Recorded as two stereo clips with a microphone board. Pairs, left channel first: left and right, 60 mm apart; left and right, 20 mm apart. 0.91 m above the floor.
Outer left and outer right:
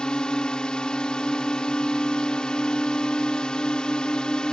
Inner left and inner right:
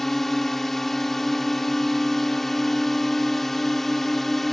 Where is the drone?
15° left (ahead or behind).